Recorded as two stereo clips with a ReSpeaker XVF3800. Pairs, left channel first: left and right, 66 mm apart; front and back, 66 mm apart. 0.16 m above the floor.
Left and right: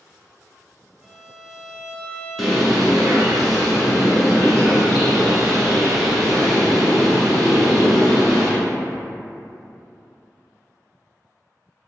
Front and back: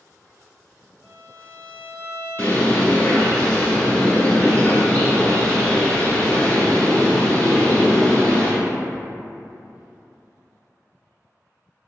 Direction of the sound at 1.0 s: 145° right.